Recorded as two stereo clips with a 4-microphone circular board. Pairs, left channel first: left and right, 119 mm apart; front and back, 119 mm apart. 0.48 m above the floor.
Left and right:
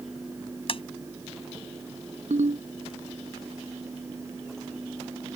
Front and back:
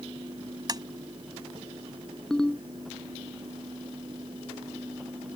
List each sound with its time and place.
0.7 s tapping: 125° left
2.3 s a ringtone: 85° right